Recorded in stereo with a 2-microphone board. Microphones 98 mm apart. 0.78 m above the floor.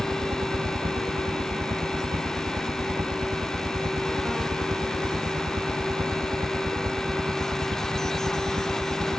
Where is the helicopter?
60° right (ahead or behind); by 9.2 s 35° right (ahead or behind).